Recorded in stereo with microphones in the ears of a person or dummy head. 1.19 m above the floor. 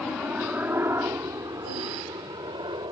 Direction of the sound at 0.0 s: Centre (ahead or behind).